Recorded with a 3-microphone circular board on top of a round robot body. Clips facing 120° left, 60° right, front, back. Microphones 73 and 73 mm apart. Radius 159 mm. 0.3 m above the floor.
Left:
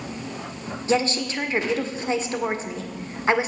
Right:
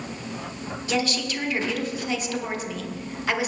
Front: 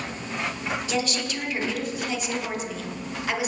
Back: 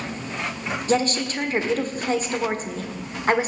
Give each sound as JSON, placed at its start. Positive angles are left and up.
{"t": 0.9, "sound": "a woman speaking", "azimuth_deg": 165, "distance_m": 1.5}